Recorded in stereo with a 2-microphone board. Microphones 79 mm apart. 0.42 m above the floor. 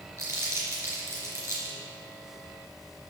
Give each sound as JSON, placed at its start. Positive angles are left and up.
{"t": 0.2, "sound": "crumpling", "side_deg": -40, "distance_m": 3.5}